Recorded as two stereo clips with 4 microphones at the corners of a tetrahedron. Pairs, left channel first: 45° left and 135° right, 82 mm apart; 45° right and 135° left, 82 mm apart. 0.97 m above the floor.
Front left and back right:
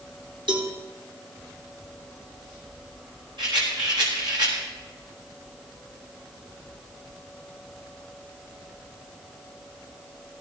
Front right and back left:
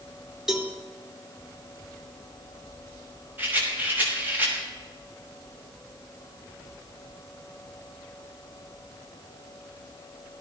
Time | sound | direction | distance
0.5 | a cowbell | 140° right | 2.5 m
3.4 | a rattle | 160° right | 6 m